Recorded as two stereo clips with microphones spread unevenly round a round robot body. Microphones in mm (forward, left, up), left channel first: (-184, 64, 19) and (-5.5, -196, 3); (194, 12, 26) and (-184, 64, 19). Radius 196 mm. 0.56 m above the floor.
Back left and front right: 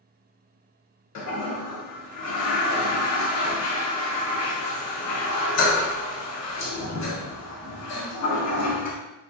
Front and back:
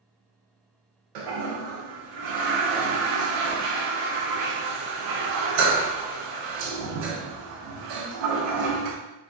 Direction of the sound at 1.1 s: 160° left.